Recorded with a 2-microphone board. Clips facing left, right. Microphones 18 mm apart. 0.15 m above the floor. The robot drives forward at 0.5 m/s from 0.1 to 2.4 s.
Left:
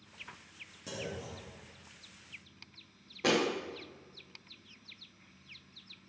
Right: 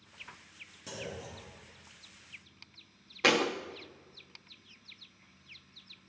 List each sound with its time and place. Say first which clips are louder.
0.9 s a clunk: left 1 dB; 10° right (ahead or behind), 2.5 m; by 2.2 s 5° right (ahead or behind), 3 m
3.2 s a thud: right 3 dB; 50° right (ahead or behind), 1.1 m